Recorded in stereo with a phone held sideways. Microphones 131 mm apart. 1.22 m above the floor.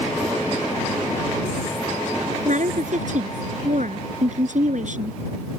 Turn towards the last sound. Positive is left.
turn(degrees=-70)  # may be behind; listen again after turning